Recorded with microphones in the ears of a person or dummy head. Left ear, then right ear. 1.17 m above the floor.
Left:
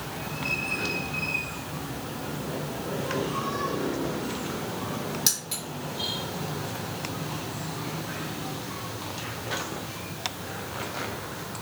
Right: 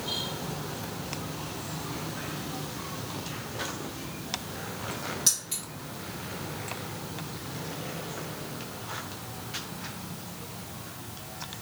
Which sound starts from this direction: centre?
Keys jangling, at 5.3 s.